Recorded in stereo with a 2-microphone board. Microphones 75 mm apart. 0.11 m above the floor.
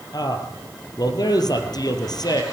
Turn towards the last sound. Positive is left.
turn(degrees=65)  # may be behind; listen again after turning